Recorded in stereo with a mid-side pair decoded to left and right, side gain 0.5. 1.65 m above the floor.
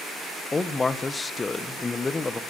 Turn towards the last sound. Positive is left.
turn(degrees=25)